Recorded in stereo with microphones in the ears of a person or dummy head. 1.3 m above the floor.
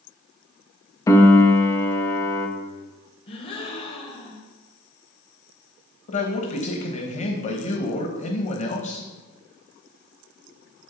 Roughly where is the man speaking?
Left.